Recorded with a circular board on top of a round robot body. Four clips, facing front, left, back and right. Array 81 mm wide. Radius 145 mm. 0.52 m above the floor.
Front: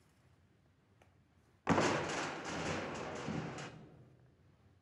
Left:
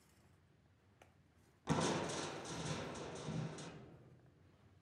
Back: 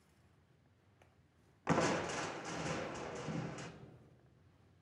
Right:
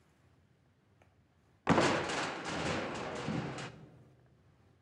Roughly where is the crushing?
Right.